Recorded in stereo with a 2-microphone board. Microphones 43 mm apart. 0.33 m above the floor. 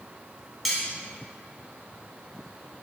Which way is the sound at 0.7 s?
5° right (ahead or behind).